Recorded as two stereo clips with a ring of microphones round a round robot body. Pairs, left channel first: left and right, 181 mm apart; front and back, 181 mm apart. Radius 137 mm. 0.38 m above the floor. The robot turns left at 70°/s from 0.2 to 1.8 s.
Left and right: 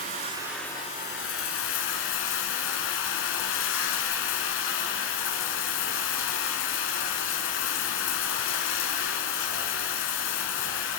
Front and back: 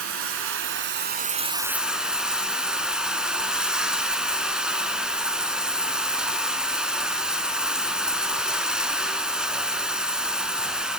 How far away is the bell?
No bell in this recording.